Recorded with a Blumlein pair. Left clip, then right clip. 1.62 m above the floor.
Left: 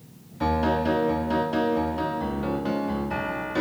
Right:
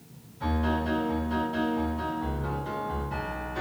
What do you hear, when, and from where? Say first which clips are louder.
0.4 s a piano: left 6 dB; 55° left, 1.0 m